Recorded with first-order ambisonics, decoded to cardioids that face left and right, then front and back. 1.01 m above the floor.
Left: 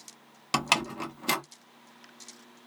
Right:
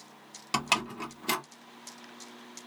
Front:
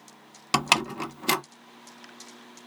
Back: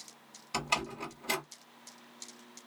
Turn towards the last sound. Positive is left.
turn(degrees=15)